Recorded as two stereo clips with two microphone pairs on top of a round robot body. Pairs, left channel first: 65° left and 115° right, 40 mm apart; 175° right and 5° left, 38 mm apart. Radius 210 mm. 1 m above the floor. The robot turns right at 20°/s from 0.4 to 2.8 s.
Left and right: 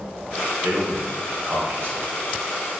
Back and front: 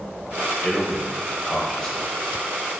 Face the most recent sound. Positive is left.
turn(degrees=-75)